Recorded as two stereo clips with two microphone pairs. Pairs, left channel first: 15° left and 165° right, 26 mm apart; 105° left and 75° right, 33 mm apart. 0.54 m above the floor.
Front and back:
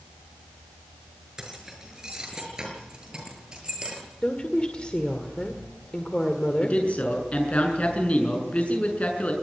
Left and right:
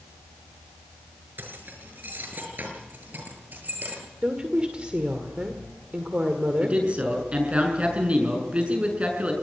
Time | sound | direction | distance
1.4 | keys jangling | 95° right | 6.5 m
4.2 | a woman speaking | 25° right | 2.0 m
6.6 | a man speaking | 25° right | 6.5 m